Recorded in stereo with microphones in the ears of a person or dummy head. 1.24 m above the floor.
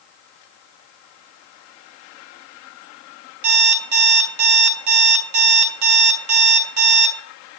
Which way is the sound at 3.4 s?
60° right (ahead or behind).